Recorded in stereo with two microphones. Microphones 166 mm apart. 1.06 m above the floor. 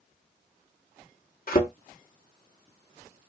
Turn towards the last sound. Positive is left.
turn(degrees=65)  # may be behind; listen again after turning